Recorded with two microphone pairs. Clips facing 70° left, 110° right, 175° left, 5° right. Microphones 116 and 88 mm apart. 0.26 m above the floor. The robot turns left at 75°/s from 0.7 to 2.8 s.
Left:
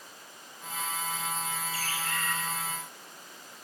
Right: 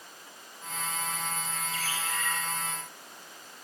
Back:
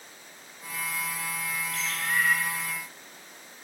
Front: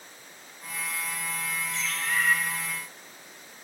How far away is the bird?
About 4 m.